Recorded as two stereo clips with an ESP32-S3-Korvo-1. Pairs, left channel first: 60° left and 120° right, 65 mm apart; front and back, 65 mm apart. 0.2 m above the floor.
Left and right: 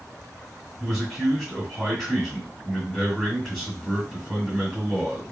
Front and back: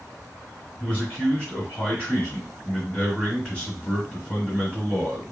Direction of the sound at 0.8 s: 45° right.